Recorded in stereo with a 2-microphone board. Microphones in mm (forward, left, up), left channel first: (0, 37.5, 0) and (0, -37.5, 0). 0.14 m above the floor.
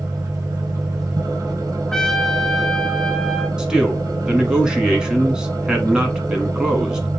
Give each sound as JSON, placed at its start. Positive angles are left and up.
{"t": 0.0, "sound": "an engine running", "side_deg": -50, "distance_m": 0.9}
{"t": 1.9, "sound": "a trumpet", "side_deg": 5, "distance_m": 0.6}
{"t": 3.6, "sound": "a man speaking", "side_deg": -10, "distance_m": 1.1}